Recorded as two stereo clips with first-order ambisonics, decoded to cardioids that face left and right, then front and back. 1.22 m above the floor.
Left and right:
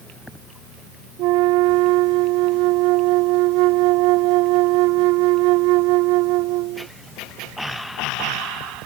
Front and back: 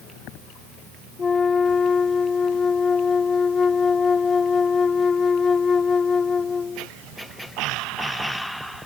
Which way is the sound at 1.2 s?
70° right.